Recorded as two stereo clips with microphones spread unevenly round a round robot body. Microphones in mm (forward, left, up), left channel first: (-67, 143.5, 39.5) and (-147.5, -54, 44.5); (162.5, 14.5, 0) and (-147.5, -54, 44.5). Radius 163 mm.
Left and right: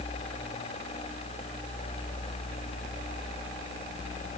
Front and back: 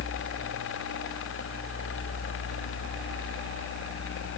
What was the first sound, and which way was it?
Only background noise.